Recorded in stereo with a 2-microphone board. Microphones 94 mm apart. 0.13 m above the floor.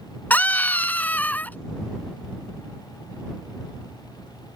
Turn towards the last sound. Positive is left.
turn(degrees=20)  # may be behind; listen again after turning